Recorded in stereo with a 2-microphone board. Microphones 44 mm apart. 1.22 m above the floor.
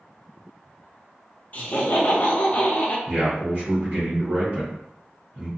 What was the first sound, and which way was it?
Laughter, 35° left (ahead or behind).